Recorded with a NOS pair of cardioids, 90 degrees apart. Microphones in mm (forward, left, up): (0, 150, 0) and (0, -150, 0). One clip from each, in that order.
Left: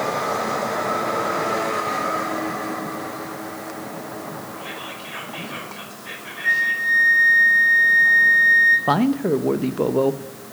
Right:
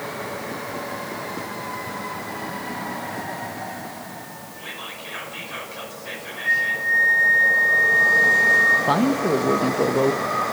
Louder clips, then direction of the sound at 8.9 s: Even; 10° left.